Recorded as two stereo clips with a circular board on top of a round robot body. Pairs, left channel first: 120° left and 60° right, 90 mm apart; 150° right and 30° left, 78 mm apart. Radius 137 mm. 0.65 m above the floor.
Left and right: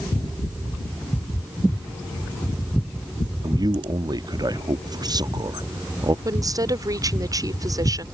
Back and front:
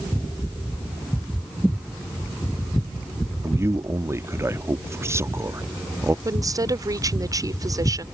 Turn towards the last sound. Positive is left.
turn(degrees=-10)